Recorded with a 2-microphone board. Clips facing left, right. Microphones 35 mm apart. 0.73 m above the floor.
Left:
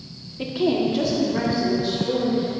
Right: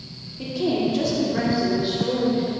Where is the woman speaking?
40° left (ahead or behind), 1.4 m; by 2.5 s 25° right (ahead or behind), 3 m.